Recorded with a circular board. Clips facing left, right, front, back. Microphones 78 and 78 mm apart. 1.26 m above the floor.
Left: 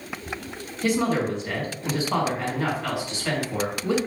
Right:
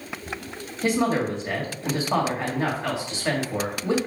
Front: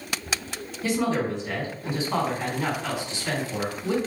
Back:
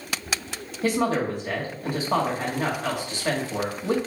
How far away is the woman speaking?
About 2.0 m.